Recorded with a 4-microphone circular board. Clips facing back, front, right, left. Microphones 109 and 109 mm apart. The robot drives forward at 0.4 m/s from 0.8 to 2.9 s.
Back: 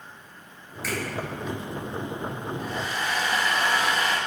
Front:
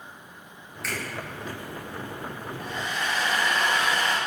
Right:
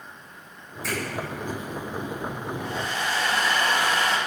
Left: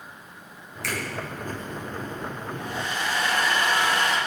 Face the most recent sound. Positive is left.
turn(degrees=-120)